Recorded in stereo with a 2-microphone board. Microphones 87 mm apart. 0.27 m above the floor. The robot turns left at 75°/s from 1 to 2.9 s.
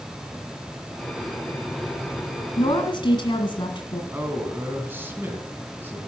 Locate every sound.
2.6 s a woman speaking: 65° left (ahead or behind), 1.9 m; by 4.0 s 60° left (ahead or behind), 1.9 m
4.1 s a man speaking: 25° right (ahead or behind), 2 m